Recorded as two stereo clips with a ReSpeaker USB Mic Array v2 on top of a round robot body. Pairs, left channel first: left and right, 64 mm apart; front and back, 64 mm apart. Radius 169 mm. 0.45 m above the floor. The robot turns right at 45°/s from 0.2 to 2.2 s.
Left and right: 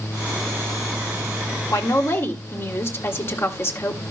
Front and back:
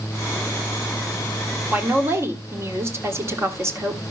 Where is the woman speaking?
115° left, 3 m; by 4.0 s 135° left, 3 m.